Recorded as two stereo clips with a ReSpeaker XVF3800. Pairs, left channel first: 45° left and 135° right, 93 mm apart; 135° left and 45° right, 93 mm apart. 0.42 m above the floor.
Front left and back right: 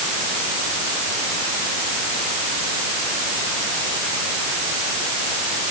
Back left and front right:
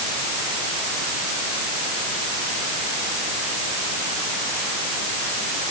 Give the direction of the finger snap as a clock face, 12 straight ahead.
No finger snap in this recording.